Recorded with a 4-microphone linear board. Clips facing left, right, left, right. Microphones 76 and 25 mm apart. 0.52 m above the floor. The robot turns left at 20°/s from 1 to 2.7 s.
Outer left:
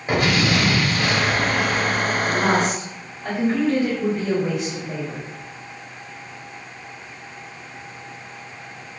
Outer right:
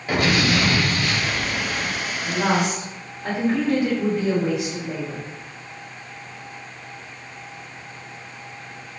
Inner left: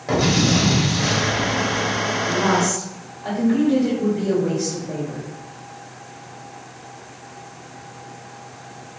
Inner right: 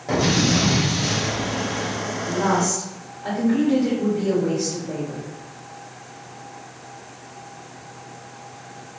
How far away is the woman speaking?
About 1.6 m.